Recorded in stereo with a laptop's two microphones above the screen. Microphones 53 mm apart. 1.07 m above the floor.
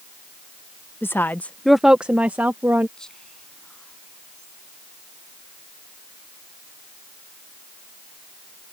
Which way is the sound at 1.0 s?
45° left (ahead or behind).